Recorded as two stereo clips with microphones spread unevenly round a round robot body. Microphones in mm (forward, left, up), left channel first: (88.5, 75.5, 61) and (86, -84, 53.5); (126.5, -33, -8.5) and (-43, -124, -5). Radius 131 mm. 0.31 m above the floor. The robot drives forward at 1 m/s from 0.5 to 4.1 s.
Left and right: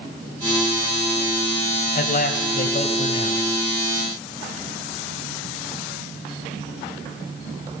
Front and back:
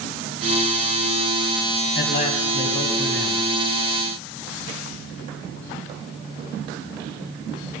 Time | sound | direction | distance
1.9 | a man speaking | 65° left | 1.9 m